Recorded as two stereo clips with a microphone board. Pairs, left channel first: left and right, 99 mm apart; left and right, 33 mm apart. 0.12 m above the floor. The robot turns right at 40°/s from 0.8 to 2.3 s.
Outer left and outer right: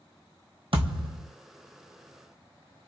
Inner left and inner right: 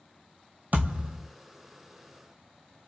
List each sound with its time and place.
0.7 s a thud: 55° right (ahead or behind), 1.2 m; by 1.3 s 35° right (ahead or behind), 1.2 m